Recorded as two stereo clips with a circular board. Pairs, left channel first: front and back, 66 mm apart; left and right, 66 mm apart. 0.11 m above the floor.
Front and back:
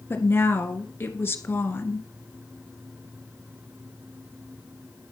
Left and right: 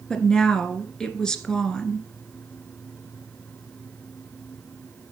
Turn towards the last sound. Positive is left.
turn(degrees=15)